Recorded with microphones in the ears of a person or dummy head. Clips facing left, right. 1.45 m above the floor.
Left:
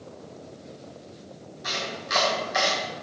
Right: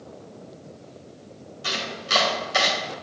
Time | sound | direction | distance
1.6 | chopping | 45° right (ahead or behind) | 2.5 m